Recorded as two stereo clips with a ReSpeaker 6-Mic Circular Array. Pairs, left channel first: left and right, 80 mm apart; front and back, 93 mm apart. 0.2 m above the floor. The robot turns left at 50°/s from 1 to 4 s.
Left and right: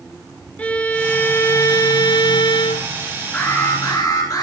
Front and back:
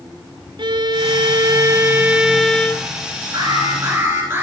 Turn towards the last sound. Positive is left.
turn(degrees=120)